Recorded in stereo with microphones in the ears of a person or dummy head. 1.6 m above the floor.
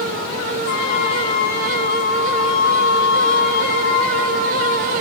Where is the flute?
60° left (ahead or behind), 6 m.